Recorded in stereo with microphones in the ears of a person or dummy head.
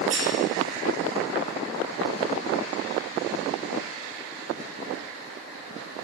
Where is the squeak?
45° right (ahead or behind), 0.9 m.